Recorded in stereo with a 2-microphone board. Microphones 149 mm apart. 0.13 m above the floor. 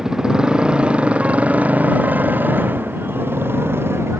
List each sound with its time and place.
0.0 s a motorcycle: 5° right (ahead or behind); by 4.2 s 15° right (ahead or behind)